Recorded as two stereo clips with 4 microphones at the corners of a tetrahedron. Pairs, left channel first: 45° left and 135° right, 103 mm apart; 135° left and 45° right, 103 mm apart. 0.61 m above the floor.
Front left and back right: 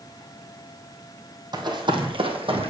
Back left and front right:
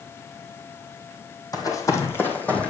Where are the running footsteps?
175° right, 1.5 m; by 2.7 s 145° right, 1.6 m.